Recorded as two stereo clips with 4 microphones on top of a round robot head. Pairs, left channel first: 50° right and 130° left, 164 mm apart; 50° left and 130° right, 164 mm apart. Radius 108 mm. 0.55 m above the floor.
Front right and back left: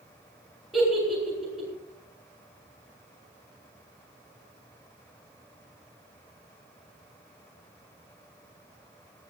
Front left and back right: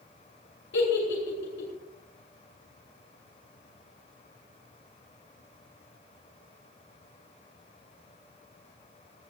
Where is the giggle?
45° left, 8 m.